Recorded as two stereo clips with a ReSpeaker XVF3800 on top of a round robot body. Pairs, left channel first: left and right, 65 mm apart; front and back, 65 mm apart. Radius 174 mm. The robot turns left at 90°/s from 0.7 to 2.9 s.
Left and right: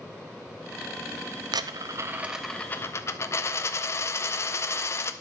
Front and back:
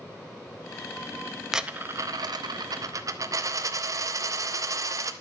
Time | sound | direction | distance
1.5 | a dropped coin | 95° right | 0.6 m